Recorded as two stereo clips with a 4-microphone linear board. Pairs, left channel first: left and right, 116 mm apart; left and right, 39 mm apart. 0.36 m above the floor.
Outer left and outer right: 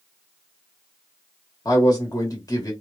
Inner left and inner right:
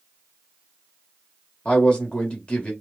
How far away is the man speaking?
About 1.3 m.